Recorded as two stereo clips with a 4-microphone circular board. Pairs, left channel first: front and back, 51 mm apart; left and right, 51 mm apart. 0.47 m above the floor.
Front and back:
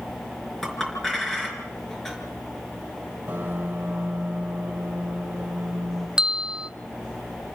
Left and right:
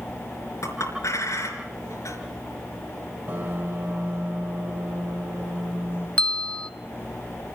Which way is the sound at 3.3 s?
135° right.